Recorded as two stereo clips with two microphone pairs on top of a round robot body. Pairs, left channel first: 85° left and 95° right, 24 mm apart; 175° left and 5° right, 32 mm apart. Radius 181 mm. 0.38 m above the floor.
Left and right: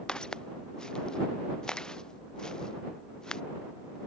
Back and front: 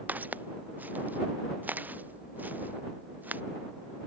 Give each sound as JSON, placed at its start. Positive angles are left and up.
{"t": 0.1, "sound": "footsteps", "azimuth_deg": 25}